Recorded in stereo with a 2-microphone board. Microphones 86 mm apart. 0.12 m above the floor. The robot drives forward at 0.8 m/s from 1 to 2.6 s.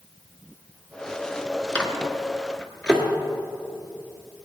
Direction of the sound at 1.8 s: 15° left (ahead or behind).